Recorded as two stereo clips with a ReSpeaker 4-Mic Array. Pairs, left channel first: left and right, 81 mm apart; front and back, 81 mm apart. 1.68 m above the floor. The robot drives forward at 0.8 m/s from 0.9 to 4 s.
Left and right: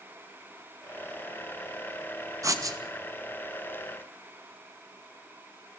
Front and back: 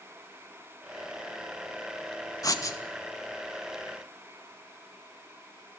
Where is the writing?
45° right, 2.5 m; by 2.8 s 50° right, 2 m.